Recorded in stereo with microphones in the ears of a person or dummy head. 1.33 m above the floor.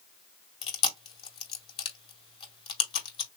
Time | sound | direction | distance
0.6 | chewing | 35° left (ahead or behind) | 2.5 m